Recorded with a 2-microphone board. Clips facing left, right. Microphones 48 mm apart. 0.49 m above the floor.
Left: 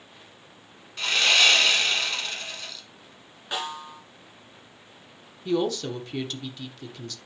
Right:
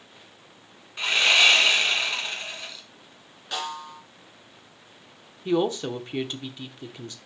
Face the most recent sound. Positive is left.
turn(degrees=-25)  # may be behind; listen again after turning